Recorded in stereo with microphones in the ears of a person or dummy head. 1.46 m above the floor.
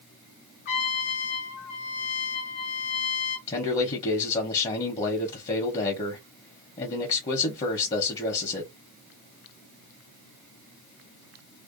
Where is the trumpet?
60° left (ahead or behind), 1.1 m.